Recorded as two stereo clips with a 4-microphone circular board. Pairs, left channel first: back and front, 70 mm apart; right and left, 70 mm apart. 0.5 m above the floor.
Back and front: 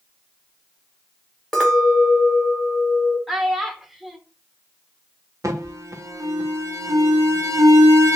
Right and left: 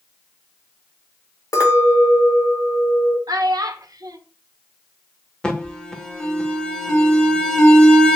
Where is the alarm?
15° right, 0.6 m.